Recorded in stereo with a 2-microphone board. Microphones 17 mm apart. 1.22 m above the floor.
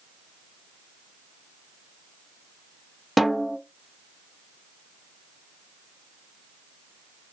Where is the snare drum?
5° right (ahead or behind), 0.8 m.